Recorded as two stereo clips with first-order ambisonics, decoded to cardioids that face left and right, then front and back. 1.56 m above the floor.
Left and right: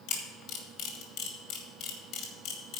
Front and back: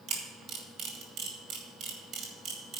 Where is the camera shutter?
130° left, 2.0 m.